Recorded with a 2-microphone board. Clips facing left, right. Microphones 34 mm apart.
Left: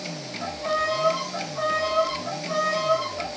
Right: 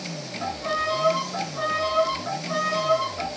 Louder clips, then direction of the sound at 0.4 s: Left 1 dB; 10° right (ahead or behind).